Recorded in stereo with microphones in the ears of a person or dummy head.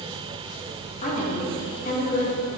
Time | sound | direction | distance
1.0 | a woman speaking | 40° left (ahead or behind) | 1.6 m